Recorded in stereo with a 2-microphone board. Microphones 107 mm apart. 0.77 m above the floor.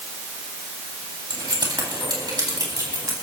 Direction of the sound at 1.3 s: 45° right (ahead or behind).